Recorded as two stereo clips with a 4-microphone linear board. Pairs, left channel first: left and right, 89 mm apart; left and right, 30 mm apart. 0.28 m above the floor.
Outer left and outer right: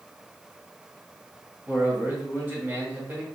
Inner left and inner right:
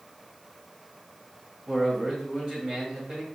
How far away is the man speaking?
About 1.8 m.